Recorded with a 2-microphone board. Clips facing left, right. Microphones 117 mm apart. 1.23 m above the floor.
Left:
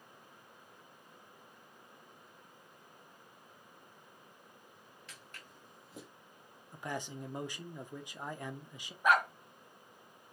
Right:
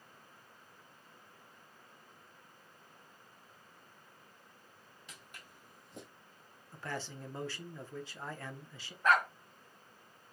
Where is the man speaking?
15° left (ahead or behind), 0.7 m.